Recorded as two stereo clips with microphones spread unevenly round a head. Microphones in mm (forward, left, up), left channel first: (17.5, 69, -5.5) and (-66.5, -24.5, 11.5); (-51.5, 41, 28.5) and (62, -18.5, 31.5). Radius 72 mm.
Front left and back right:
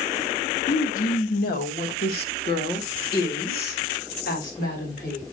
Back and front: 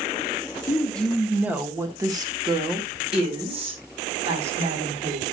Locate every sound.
0.7 s a woman speaking: 80° left, 1.3 m; by 5.2 s 10° left, 4.5 m